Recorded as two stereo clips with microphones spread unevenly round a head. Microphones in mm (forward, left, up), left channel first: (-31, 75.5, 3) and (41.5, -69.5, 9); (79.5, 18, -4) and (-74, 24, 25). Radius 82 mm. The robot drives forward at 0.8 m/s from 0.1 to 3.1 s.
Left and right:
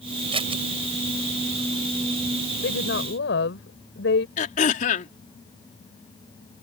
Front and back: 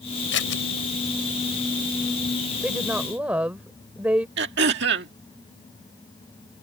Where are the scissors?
5° right.